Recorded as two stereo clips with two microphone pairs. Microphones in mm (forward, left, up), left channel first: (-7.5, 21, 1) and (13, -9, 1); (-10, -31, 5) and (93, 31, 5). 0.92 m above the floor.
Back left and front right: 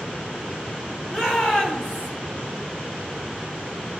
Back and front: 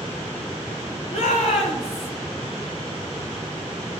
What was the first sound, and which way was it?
A shout, 155° right.